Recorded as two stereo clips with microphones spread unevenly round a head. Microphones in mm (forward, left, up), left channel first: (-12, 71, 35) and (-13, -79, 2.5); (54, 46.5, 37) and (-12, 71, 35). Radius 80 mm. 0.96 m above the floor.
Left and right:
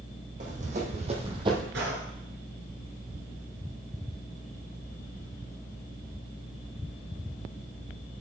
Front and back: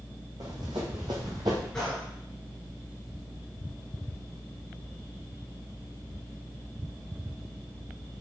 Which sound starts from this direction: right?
A gunshot, at 1.7 s.